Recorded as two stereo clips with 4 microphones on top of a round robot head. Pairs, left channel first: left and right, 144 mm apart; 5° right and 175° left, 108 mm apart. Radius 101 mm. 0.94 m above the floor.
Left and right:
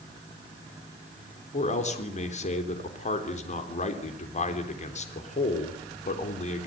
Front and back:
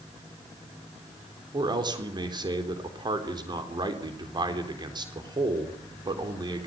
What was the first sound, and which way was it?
A man speaking, 125° left.